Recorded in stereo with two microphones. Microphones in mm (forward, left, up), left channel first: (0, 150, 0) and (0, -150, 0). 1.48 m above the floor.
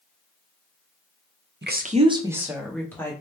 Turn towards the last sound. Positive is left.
turn(degrees=10)  # may be behind; listen again after turning